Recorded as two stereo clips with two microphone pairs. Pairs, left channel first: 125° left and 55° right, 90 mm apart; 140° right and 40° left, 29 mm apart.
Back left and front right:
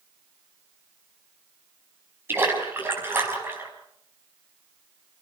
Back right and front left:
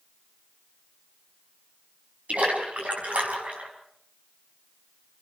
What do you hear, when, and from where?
2.3 s a splash: 10° left, 5 m